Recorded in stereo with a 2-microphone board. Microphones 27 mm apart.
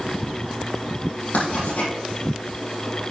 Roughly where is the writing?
Left.